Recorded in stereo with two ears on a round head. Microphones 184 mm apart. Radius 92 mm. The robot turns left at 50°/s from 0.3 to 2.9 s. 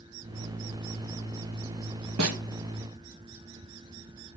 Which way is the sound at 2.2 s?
75° right (ahead or behind).